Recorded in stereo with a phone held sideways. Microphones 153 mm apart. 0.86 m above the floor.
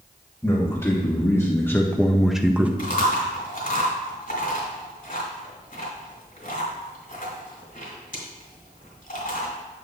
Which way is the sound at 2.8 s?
65° left (ahead or behind).